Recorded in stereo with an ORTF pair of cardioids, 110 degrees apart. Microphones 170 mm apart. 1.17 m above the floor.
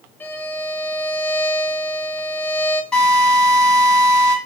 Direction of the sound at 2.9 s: 5° left.